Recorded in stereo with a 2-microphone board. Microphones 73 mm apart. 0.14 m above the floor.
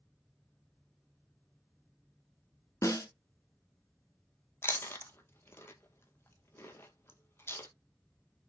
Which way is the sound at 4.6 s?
35° left (ahead or behind).